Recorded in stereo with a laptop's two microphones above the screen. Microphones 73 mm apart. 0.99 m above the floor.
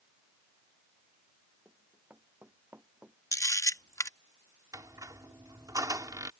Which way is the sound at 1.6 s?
30° right (ahead or behind).